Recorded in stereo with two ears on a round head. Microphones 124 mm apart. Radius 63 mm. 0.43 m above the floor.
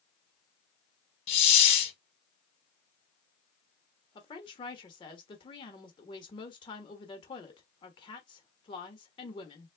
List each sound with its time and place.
1.3 s a hiss: 40° left (ahead or behind), 0.9 m
4.2 s a woman speaking: 35° left (ahead or behind), 1.2 m